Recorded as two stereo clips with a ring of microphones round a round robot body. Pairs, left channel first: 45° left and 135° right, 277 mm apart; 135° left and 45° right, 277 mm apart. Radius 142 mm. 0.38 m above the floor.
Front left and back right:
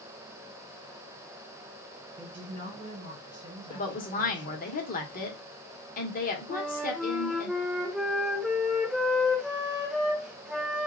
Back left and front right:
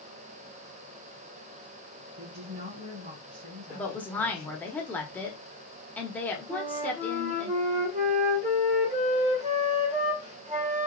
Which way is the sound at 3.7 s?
55° left.